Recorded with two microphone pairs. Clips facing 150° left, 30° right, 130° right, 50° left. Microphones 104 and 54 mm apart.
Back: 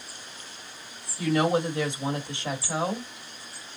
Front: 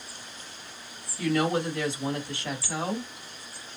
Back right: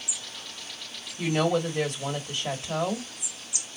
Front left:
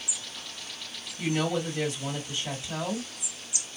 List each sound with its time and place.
1.2 s a woman speaking: 145° right, 1.6 m